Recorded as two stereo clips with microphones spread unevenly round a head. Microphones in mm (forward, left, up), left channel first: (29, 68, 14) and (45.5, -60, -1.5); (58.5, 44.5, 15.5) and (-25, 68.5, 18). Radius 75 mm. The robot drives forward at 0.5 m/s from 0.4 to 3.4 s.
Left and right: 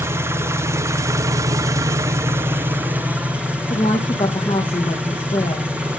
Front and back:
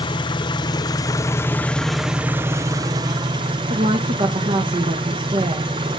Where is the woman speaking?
155° left, 1.6 m.